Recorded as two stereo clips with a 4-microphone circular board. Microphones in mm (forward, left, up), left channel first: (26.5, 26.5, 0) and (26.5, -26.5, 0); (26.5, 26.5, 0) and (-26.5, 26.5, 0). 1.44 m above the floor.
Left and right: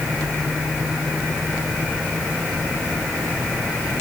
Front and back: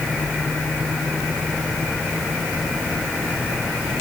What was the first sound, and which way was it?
Only background noise.